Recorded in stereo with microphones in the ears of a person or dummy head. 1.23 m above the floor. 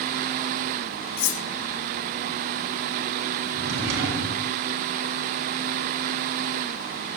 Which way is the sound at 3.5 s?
70° right (ahead or behind).